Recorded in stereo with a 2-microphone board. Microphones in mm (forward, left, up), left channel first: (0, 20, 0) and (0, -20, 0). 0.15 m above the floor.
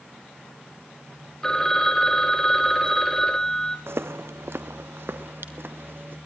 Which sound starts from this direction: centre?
A phone ringing, at 1.4 s.